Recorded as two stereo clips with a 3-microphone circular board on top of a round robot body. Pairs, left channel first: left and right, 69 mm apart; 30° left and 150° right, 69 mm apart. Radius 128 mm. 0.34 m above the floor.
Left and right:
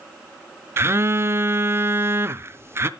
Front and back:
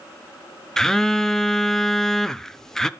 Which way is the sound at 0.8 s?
50° right.